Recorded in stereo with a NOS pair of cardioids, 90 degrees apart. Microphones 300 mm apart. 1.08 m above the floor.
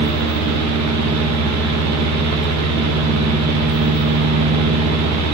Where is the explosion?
I don't hear an explosion.